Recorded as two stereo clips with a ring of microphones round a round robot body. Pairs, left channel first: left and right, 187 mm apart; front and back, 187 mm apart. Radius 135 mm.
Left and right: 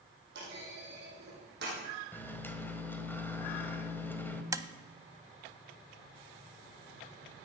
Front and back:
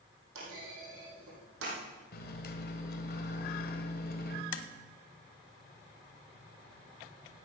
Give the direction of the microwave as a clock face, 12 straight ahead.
12 o'clock.